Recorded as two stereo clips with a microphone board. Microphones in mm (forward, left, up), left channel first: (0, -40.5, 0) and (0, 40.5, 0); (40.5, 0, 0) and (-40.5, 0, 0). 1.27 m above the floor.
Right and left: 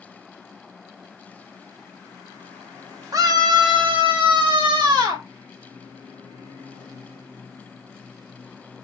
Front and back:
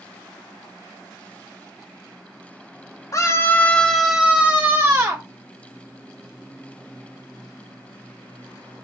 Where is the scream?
45° left, 1.5 m; by 5.2 s 125° left, 2.5 m.